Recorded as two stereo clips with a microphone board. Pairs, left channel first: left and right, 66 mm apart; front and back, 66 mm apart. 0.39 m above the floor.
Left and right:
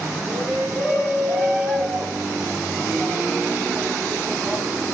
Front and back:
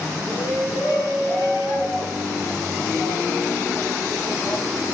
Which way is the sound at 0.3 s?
25° left.